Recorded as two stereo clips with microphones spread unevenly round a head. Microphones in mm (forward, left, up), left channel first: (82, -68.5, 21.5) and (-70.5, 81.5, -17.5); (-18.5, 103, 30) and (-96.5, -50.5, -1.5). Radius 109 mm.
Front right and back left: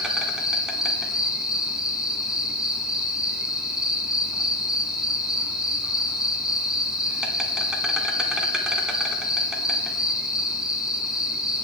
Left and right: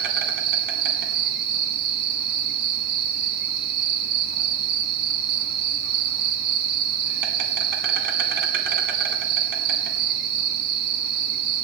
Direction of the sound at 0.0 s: 130° right.